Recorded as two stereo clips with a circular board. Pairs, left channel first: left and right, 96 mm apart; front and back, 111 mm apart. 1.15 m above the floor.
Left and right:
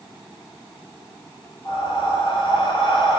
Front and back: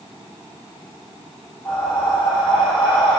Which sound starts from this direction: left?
Breathing, at 1.6 s.